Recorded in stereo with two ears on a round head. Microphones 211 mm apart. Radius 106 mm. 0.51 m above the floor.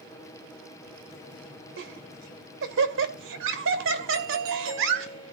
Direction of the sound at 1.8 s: 55° right (ahead or behind).